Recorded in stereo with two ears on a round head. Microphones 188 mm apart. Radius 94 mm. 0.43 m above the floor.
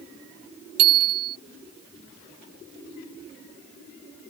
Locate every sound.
0.8 s a bicycle bell: 80° right